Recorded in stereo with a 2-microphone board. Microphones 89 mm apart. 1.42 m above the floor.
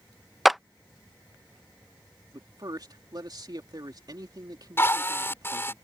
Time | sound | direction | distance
0.5 | a clap | centre (ahead or behind) | ?
2.3 | a man speaking | 50° right (ahead or behind) | ?
4.8 | a drill | 25° left (ahead or behind) | ?